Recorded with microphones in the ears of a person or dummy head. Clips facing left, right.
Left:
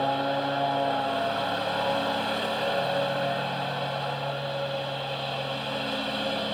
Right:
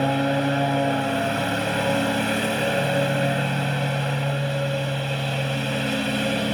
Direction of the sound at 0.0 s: 35° right (ahead or behind).